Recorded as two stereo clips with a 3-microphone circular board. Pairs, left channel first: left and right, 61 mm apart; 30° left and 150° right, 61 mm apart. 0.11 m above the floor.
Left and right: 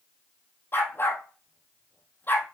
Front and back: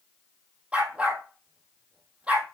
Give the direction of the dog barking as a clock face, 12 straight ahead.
7 o'clock.